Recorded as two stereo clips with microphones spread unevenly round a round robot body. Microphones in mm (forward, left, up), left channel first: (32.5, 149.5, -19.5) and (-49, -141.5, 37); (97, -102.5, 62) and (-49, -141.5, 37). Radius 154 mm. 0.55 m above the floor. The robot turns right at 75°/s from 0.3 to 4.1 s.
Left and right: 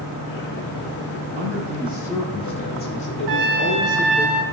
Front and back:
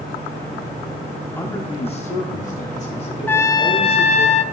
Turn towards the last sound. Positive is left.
turn(degrees=-10)